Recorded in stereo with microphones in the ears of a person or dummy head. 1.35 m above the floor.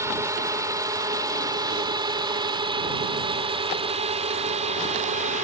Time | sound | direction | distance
0.0 | a drone | 15° right (ahead or behind) | ?